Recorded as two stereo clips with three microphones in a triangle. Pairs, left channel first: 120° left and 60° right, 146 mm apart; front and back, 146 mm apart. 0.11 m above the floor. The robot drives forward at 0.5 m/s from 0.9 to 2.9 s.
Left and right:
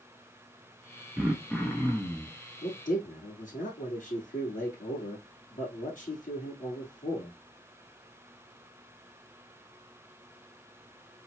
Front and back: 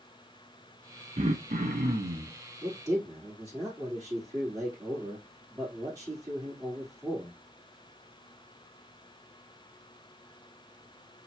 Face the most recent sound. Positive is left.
turn(degrees=120)